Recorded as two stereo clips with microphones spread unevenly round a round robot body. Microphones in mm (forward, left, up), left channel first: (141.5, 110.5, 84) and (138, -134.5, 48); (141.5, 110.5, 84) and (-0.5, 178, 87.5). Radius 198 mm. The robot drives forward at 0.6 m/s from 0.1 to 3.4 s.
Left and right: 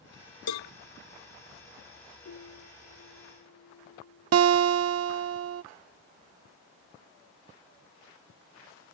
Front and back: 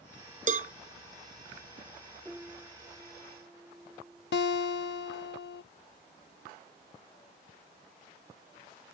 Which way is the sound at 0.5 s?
115° left.